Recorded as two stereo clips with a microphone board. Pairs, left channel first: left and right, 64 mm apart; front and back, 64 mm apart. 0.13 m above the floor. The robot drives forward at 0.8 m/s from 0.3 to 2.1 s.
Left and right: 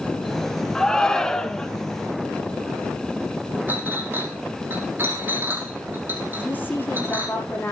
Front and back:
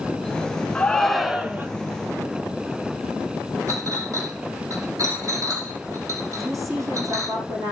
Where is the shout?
30° left, 1.1 m; by 1.7 s 155° left, 1.1 m.